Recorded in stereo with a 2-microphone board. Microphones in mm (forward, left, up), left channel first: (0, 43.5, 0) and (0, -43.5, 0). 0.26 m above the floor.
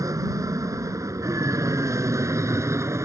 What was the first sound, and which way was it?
An aircraft, 40° right (ahead or behind).